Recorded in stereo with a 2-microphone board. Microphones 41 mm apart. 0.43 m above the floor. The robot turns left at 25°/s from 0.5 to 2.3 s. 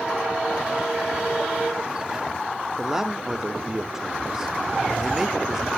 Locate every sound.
2.8 s a man speaking: 10° right (ahead or behind), 0.8 m